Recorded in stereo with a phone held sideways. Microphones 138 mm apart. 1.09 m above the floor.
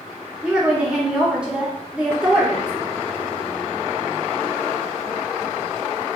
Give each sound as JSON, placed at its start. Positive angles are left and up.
{"t": 0.4, "sound": "a woman speaking", "side_deg": -10, "distance_m": 0.8}